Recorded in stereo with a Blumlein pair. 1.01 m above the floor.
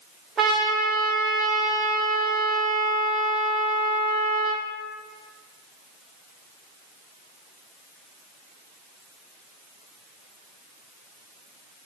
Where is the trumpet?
15° right, 1.3 m.